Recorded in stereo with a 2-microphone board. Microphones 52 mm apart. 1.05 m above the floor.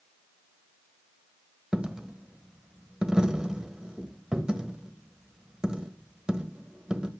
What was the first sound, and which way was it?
A dropped coin, 15° right (ahead or behind).